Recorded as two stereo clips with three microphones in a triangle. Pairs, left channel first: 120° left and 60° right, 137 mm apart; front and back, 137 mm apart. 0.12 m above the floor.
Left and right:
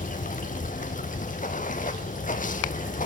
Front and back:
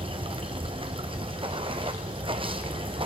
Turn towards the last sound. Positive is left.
turn(degrees=130)